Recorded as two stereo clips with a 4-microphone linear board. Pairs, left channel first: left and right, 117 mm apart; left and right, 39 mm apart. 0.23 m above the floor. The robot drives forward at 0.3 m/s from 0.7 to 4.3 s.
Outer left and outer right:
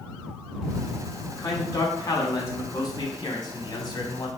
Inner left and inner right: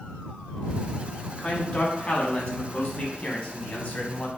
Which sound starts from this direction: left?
A man speaking, at 1.3 s.